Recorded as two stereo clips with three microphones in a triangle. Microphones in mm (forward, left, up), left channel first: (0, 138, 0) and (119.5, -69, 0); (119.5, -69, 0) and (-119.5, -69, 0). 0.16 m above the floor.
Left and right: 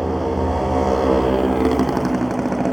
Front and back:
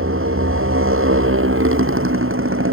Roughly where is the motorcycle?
Behind right.